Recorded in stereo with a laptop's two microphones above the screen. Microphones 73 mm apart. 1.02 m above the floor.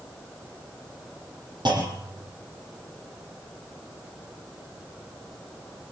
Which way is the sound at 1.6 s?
85° right.